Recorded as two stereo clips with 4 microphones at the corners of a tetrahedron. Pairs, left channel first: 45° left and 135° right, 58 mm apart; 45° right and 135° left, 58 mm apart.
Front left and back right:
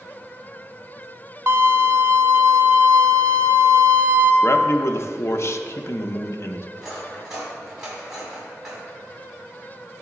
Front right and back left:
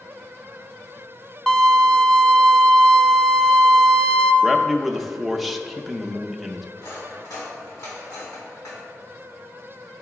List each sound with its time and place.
1.5 s a violin: 120° right, 0.6 m
4.4 s a man speaking: 50° left, 0.6 m
6.8 s cutlery clinking: 55° right, 3 m